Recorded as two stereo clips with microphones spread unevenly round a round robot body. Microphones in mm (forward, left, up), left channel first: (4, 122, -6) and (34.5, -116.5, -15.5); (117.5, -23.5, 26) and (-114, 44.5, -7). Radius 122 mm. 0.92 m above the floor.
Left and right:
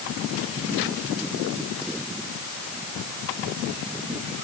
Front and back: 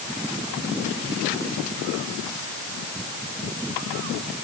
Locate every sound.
Only background noise.